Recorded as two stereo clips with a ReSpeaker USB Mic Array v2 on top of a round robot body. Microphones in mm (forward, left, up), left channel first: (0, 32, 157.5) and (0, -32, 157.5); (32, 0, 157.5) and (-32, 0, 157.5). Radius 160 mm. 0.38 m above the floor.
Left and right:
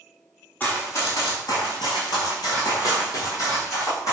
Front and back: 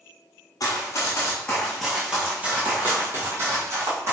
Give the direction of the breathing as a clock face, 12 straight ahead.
No breathing in this recording.